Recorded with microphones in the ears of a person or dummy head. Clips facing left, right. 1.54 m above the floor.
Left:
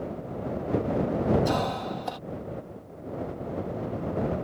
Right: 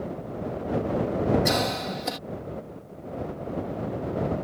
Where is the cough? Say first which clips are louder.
Right 1 dB; 30° right (ahead or behind).